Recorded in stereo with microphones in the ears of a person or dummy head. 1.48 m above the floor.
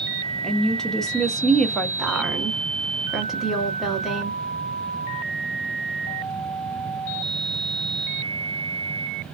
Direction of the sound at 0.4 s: Centre (ahead or behind).